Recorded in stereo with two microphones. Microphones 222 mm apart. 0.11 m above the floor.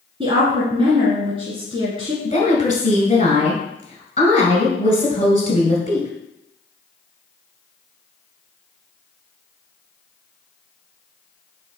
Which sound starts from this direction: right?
A woman speaking, at 0.2 s.